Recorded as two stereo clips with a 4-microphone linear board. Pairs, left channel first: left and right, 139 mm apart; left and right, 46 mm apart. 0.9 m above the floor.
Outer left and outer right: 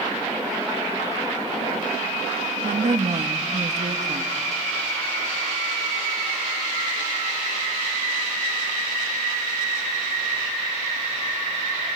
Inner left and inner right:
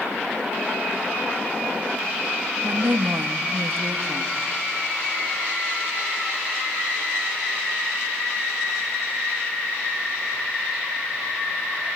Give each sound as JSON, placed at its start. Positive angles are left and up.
{"t": 2.6, "sound": "a woman speaking", "side_deg": -60, "distance_m": 1.3}